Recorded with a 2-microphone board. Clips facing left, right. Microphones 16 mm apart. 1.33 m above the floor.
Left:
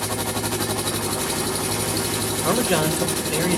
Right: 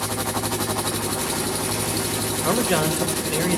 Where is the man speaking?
10° right (ahead or behind), 2.5 m.